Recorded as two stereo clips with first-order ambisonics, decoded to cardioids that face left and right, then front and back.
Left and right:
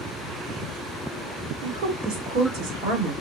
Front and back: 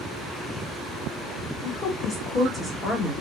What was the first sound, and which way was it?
A woman speaking, 50° right.